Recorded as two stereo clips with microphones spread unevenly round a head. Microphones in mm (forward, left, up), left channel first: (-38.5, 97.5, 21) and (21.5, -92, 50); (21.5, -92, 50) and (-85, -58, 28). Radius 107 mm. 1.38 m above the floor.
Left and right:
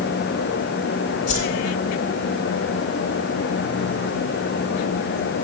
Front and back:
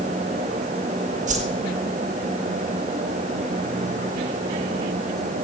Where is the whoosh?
165° left, 3 m.